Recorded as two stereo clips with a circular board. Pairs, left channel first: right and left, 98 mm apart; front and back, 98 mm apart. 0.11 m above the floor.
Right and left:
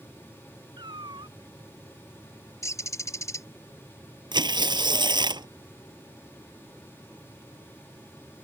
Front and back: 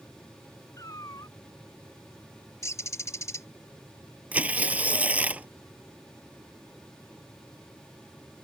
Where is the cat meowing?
55° left.